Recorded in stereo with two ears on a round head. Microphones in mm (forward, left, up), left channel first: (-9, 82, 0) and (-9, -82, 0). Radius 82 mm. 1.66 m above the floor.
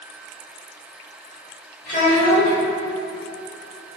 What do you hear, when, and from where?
1.9 s a child speaking: 50° left (ahead or behind), 1.9 m